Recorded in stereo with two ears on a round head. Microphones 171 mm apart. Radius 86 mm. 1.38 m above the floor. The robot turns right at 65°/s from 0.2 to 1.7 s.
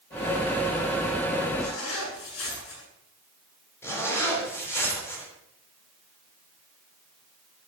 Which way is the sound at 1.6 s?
80° left.